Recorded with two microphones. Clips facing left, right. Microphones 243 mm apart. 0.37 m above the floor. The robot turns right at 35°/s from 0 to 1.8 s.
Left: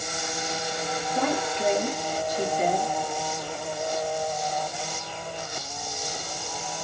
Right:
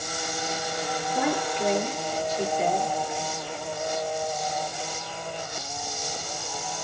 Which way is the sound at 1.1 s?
10° right (ahead or behind).